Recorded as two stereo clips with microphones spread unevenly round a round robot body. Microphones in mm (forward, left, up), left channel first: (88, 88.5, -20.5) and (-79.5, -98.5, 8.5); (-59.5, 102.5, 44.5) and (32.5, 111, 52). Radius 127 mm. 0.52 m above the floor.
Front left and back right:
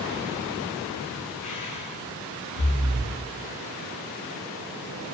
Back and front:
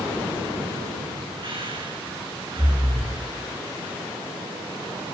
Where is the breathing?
35° left, 6 m.